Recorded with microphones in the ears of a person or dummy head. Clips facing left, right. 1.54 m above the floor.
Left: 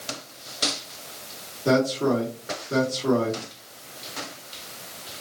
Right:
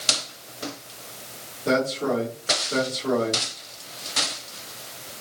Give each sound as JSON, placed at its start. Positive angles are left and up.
{"t": 1.6, "sound": "a man speaking", "side_deg": 55, "distance_m": 2.5}